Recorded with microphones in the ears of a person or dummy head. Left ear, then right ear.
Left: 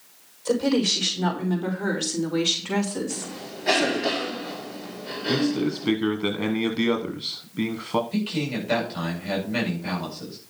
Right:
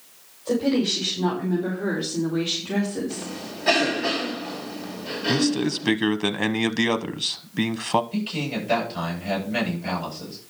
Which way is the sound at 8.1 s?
Centre (ahead or behind).